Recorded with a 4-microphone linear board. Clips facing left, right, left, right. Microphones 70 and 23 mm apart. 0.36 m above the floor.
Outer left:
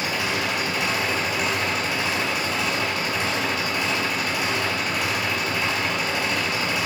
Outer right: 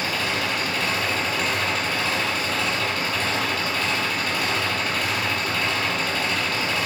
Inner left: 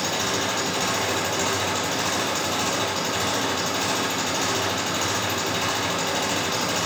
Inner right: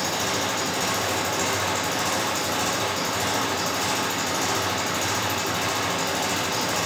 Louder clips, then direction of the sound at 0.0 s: Even, inner left 1 dB; 10° left (ahead or behind).